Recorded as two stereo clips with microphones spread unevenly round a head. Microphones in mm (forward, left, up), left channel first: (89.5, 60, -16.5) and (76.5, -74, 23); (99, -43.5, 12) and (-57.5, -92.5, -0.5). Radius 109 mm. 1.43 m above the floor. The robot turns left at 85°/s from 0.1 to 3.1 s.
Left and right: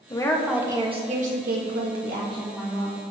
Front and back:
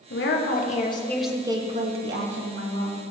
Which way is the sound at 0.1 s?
25° left.